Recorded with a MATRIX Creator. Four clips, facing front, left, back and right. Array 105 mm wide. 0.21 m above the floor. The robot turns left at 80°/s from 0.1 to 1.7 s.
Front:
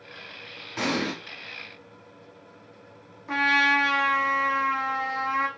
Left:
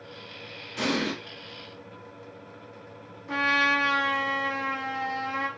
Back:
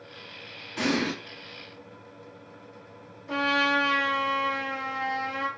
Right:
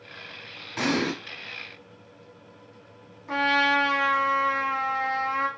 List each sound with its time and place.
0.8 s an explosion: 55° right, 1.1 m; by 1.1 s 85° right, 1.1 m
3.3 s a trumpet: 35° right, 0.8 m